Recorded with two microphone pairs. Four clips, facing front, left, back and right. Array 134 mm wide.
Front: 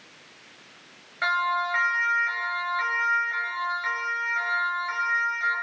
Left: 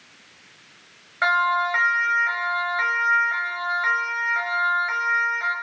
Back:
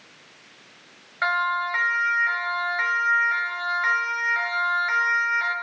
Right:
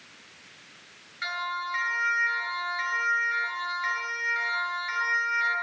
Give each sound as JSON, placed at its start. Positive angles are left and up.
{"t": 1.2, "sound": "a siren", "azimuth_deg": 110, "distance_m": 7.5}